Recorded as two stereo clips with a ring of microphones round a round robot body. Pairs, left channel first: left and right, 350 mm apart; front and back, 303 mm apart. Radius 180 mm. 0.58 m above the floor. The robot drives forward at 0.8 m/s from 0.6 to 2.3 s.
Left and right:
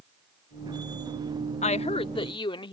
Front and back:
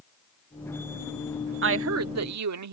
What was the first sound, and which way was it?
A woman speaking, 155° left.